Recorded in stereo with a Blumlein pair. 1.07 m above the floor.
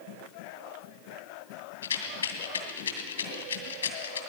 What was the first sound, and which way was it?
A rattle, 70° left.